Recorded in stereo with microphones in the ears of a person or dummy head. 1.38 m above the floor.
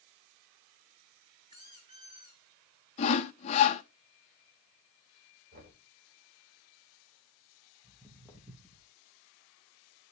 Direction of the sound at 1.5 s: 15° right (ahead or behind).